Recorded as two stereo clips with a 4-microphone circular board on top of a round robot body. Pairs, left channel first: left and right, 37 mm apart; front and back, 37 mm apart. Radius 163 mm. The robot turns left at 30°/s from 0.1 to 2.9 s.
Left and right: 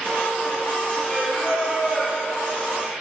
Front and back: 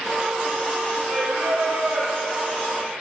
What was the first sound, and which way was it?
Singing, 160° left.